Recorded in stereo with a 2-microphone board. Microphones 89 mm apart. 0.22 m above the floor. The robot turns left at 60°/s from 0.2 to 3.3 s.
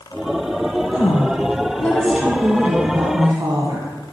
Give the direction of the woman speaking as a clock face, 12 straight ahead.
10 o'clock.